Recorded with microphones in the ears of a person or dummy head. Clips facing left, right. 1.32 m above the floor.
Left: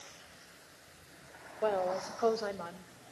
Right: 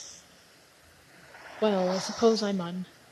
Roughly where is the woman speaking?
Right.